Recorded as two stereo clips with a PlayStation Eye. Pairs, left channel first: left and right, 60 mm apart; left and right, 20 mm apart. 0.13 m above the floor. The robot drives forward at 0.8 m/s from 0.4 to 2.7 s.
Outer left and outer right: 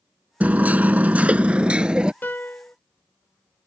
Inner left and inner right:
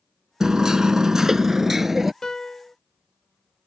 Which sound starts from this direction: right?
Hammering, at 0.4 s.